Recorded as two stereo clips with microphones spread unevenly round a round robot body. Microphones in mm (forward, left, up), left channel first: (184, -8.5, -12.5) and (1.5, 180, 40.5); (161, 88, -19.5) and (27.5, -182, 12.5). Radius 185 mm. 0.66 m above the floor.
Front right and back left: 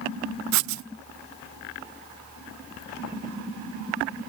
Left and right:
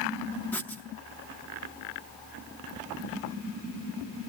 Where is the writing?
145° left, 0.5 m.